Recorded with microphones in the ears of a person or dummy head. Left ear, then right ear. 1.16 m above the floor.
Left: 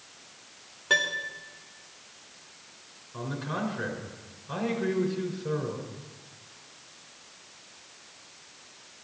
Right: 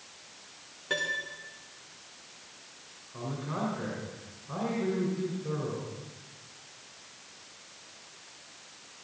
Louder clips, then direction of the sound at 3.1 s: Left 2 dB; 85° left.